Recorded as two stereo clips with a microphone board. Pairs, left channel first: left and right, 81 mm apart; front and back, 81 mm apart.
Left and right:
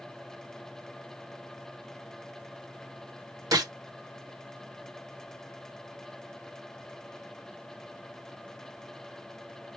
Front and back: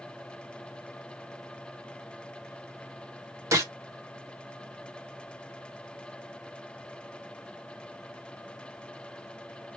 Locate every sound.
3.5 s a gunshot: 130° right, 1.2 m